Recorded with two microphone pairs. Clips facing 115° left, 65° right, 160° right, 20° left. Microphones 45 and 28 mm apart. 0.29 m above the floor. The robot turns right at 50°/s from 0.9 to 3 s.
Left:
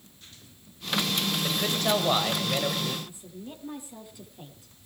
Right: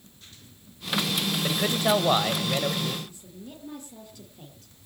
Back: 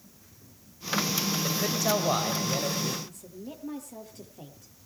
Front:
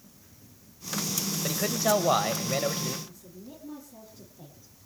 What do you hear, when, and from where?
1.4 s a man speaking: 45° right, 1.6 m; by 3.0 s 30° left, 1.6 m
3.0 s a woman speaking: 170° right, 6.5 m